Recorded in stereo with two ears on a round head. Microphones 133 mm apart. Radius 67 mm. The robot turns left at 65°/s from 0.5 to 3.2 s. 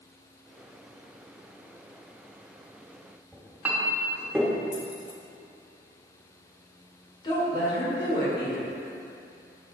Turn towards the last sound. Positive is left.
turn(degrees=30)  # may be behind; listen again after turning